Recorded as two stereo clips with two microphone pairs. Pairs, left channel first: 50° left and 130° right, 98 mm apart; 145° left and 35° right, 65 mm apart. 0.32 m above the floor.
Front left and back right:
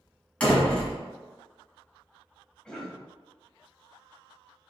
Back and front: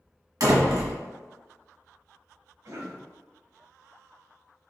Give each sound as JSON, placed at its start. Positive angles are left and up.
{"t": 0.4, "sound": "a door slam", "azimuth_deg": -30, "distance_m": 1.5}
{"t": 2.6, "sound": "a cough", "azimuth_deg": -35, "distance_m": 1.4}